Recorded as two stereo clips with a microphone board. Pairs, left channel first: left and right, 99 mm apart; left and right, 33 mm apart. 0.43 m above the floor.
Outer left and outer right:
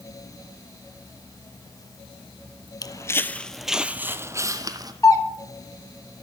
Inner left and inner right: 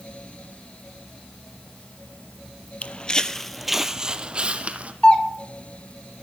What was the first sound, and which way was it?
Footsteps, 40° left (ahead or behind).